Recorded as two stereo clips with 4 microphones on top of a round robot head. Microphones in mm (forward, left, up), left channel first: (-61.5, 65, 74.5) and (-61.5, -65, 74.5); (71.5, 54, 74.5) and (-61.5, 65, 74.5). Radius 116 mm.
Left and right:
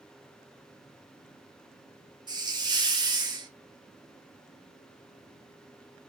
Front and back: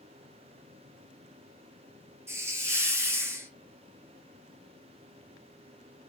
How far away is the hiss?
About 1.1 m.